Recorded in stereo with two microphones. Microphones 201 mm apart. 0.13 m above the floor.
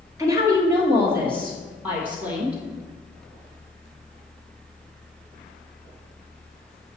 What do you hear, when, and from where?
0.2 s a woman speaking: 15° right (ahead or behind), 1.8 m; by 2.6 s 5° right (ahead or behind), 3.5 m